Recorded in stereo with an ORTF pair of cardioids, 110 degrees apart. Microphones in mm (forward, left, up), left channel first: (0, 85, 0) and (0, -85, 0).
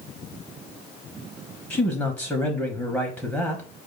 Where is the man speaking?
5° left, 0.9 m.